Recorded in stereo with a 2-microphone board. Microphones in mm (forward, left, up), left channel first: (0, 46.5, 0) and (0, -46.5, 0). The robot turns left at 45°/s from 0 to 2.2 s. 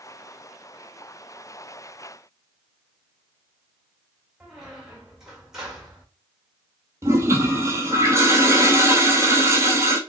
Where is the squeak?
5° right (ahead or behind), 1.6 m.